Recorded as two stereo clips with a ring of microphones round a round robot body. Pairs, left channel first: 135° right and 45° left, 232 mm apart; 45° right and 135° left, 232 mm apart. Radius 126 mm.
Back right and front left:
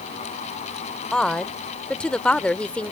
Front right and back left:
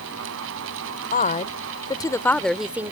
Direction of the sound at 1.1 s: 50° right.